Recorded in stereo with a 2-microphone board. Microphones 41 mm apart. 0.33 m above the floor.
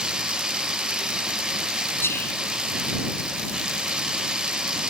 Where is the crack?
No crack in this recording.